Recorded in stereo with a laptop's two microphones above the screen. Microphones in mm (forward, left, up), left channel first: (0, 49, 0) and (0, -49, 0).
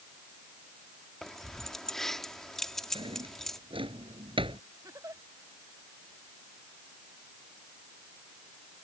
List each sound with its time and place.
1.2 s keys jangling: 5° left (ahead or behind)
3.0 s a drawer: 65° right (ahead or behind)
4.8 s a giggle: 35° right (ahead or behind)